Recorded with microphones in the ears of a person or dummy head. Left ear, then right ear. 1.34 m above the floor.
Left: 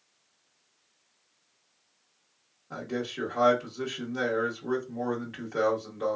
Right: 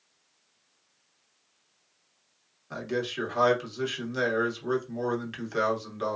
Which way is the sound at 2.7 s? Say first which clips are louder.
Right 3 dB; 85° right.